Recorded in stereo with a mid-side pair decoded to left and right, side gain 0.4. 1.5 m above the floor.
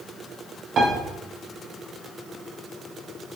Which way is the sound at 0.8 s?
55° right.